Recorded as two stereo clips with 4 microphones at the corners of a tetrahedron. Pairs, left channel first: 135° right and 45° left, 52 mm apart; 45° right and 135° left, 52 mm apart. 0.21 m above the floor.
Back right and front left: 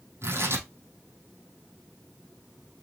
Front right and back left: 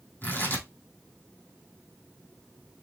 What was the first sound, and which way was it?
Tearing paper, 10° left.